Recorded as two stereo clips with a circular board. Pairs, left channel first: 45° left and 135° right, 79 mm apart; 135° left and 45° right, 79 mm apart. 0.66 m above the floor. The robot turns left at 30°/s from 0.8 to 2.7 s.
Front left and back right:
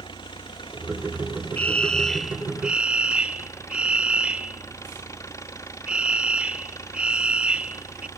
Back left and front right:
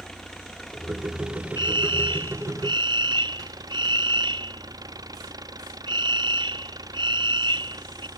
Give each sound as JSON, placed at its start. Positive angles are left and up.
{"t": 0.0, "sound": "an engine running", "azimuth_deg": 50}
{"t": 1.6, "sound": "a fire alarm", "azimuth_deg": -25}